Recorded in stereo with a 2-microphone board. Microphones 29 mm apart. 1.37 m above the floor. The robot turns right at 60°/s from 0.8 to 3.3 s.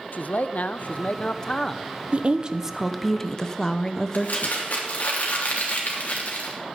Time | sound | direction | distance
0.1 | a man speaking | 115° left | 0.6 m
2.1 | a woman speaking | 45° right | 0.7 m
4.1 | crumpling | 65° left (ahead or behind) | 3 m